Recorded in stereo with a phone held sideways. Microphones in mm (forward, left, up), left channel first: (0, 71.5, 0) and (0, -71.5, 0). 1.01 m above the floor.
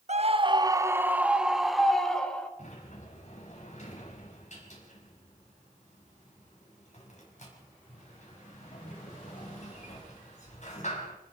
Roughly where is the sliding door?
Left.